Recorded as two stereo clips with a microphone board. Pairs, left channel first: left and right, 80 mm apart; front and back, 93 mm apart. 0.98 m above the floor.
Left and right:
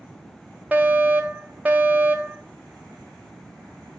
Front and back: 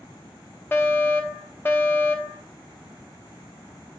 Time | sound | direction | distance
0.7 | a fire alarm | 40° right | 1.3 m